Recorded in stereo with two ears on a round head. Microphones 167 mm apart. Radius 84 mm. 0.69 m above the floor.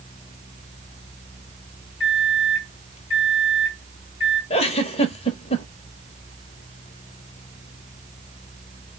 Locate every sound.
2.0 s a microwave: 30° left (ahead or behind), 2.5 m
4.5 s a giggle: 30° left (ahead or behind), 1.0 m